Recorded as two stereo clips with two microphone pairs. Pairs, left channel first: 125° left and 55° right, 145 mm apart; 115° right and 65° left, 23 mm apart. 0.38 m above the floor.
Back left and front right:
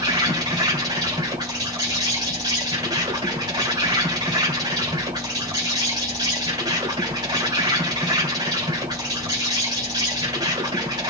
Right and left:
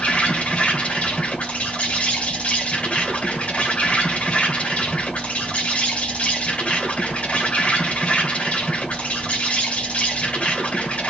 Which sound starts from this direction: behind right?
An insect, at 0.0 s.